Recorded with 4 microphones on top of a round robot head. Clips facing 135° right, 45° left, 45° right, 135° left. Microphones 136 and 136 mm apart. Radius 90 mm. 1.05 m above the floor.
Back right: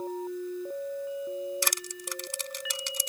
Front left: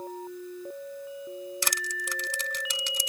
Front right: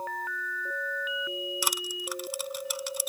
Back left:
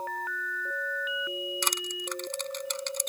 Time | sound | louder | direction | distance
1.6 | crushing | front left 1 dB, even | 40° left | ?